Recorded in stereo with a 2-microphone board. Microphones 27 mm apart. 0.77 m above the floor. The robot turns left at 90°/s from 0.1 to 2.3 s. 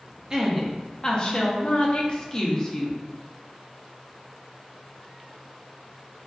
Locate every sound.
0.3 s a woman speaking: 140° right, 0.5 m; by 3.0 s 40° left, 0.5 m